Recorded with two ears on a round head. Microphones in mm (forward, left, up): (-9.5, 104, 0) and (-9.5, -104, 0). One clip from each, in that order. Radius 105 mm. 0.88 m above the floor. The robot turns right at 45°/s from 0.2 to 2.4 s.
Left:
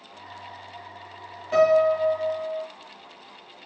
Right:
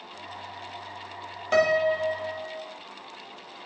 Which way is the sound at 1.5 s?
85° right.